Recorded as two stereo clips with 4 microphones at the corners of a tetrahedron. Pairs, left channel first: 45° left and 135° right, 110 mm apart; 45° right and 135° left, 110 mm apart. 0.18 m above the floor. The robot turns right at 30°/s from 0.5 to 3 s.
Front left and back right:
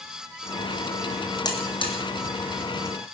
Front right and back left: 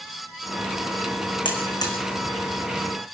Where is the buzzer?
5° right, 3 m; by 1.9 s 10° left, 3 m.